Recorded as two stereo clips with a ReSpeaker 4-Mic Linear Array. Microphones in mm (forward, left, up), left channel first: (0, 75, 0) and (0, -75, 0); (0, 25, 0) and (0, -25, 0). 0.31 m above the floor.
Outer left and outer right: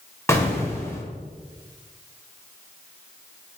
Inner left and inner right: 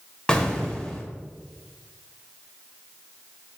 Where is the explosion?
20° left (ahead or behind), 0.7 m.